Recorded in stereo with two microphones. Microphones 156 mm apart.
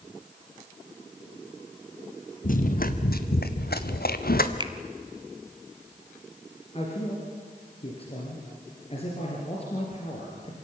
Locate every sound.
2.4 s running footsteps: 60° left (ahead or behind), 1.8 m; by 4.5 s 70° left (ahead or behind), 1.6 m
4.6 s a finger snap: 30° right (ahead or behind), 1.2 m
6.7 s a man speaking: 40° left (ahead or behind), 4 m